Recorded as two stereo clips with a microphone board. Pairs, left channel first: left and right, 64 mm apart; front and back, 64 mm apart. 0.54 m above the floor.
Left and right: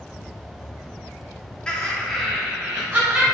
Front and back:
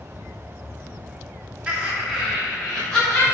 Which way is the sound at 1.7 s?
140° left.